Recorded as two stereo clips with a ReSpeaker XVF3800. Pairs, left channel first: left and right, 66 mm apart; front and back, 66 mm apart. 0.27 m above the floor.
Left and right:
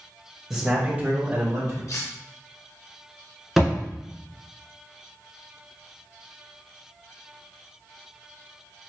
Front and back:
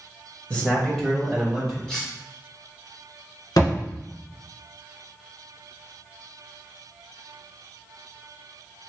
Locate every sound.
0.5 s a man speaking: 10° right, 1.0 m; by 1.8 s 95° right, 1.3 m
1.9 s cutlery clinking: 80° left, 1.3 m
3.6 s a thud: straight ahead, 1.4 m